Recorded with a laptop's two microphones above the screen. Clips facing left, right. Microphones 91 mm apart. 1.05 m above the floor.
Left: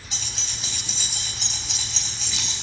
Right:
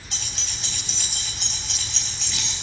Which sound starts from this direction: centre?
Keys jangling, at 0.1 s.